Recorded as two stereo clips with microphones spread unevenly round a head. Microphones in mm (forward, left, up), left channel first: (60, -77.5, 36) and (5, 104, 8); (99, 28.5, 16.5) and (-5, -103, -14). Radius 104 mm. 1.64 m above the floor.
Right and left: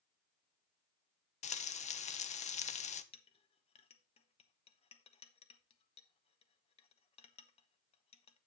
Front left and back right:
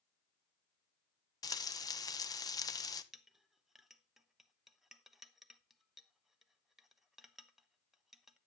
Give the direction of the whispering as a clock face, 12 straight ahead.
No whispering in this recording.